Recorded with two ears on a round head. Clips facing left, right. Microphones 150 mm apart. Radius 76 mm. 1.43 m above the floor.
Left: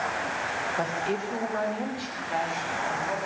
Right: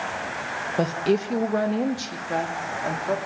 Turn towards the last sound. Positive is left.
turn(degrees=-55)  # may be behind; listen again after turning